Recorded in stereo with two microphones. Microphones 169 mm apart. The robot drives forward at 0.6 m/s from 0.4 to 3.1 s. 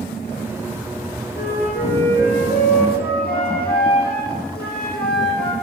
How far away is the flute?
About 4 m.